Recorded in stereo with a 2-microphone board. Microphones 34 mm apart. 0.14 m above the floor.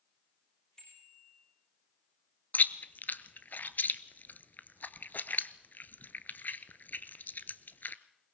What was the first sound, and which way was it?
A bicycle bell, 30° left (ahead or behind).